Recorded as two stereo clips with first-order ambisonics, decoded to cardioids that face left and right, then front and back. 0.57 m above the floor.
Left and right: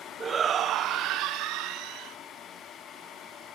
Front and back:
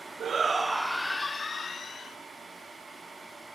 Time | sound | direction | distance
0.2 | a shout | 150° right | 0.9 m